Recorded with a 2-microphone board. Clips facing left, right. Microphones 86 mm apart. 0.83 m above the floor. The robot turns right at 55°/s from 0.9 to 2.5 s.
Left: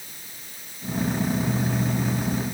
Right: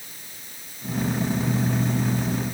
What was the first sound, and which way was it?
Only background noise.